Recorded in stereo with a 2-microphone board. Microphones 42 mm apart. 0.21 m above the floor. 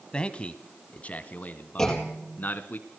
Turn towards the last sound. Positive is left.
turn(degrees=10)  # may be behind; listen again after turning